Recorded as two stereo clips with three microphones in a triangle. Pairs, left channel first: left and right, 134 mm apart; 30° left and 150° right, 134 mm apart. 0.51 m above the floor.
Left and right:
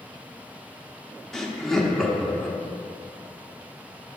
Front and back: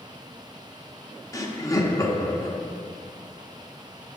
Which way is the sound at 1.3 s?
10° left.